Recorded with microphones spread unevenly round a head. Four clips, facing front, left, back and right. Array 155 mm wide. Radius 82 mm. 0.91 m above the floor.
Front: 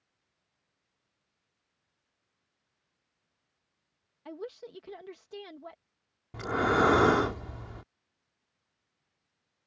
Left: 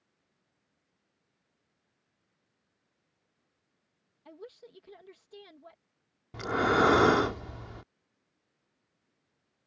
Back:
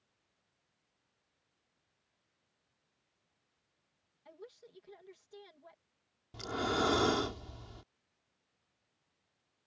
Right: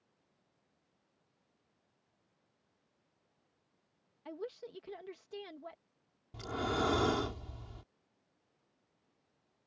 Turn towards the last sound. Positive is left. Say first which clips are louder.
# left 9 dB, front 8 dB
turn(degrees=55)